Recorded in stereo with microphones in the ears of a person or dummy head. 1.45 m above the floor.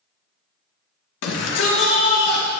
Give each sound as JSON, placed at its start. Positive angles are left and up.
{"t": 1.2, "sound": "a shout", "side_deg": 75, "distance_m": 1.2}